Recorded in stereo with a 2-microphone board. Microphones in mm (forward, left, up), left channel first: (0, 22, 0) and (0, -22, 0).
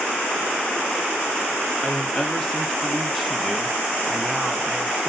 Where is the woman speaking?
15° left (ahead or behind), 1.6 m; by 5.1 s 25° right (ahead or behind), 1.2 m.